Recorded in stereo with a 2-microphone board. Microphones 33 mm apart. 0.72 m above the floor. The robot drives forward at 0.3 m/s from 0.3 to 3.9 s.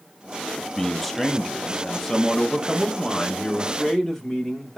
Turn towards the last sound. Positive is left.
turn(degrees=0)  # may be behind; listen again after turning